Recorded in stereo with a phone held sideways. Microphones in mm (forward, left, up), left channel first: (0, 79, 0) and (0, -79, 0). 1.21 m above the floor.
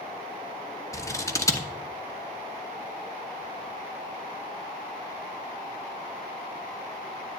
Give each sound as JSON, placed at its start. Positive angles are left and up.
{"t": 0.9, "sound": "scissors", "side_deg": 20, "distance_m": 0.9}